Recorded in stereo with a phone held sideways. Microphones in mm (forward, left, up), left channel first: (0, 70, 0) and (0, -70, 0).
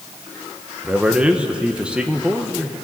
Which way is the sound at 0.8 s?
10° right (ahead or behind).